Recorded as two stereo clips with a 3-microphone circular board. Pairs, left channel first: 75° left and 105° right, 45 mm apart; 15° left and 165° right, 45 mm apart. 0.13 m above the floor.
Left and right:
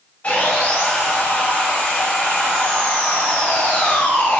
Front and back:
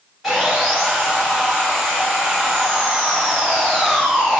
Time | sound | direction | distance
0.2 | sawing | 110° left | 1.6 m